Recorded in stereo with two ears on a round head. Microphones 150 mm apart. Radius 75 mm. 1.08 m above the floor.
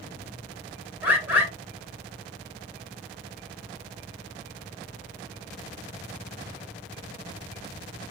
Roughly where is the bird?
Centre.